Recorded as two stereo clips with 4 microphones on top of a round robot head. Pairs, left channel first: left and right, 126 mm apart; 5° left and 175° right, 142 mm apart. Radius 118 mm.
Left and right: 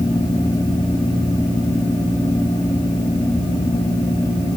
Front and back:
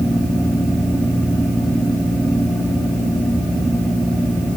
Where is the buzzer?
No buzzer in this recording.